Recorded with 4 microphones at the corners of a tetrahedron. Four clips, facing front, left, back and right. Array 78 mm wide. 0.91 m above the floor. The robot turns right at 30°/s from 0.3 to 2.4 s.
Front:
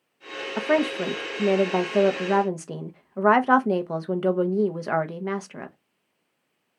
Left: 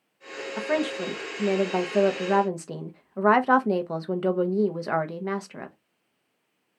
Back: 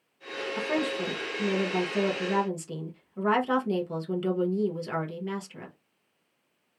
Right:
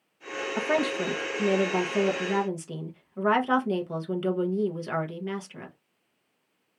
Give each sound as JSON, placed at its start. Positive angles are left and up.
{"t": 0.6, "sound": "a woman speaking", "azimuth_deg": -20, "distance_m": 0.6}